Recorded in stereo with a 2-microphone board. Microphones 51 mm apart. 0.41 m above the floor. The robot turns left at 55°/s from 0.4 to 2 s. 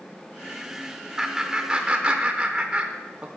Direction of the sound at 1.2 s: 10° right (ahead or behind).